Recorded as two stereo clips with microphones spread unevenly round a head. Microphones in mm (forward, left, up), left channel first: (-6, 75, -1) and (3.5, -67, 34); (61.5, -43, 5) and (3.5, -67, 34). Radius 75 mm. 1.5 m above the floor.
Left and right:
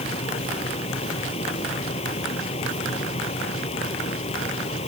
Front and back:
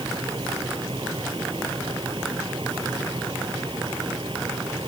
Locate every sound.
0.0 s a fan: 145° left